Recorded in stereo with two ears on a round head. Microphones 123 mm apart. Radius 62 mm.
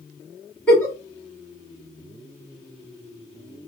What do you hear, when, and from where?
0.7 s a giggle: 20° left (ahead or behind), 2 m